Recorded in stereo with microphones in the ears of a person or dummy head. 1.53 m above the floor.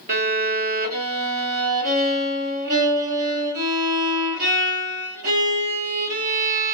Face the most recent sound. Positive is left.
turn(degrees=-50)  # may be behind; listen again after turning